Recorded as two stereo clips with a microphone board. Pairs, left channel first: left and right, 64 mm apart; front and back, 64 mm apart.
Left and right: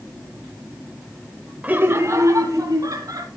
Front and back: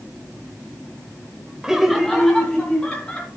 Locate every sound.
1.6 s laughter: 110° right, 0.9 m; by 3.3 s 80° right, 3 m